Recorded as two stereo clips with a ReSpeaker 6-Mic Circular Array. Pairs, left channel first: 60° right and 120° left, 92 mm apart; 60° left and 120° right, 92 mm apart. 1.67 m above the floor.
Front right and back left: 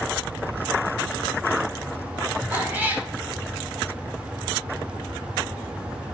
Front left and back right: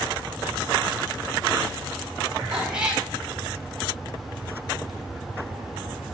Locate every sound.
2.5 s a cat meowing: 170° left, 1.7 m